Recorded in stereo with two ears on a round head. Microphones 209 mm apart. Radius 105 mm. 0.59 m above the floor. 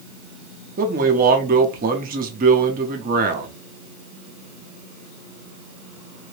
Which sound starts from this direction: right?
A man speaking, at 0.8 s.